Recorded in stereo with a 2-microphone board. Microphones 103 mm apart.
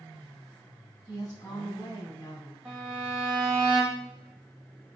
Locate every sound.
1.1 s a woman speaking: 30° left (ahead or behind), 2.5 m
2.6 s a violin: 10° right (ahead or behind), 4.5 m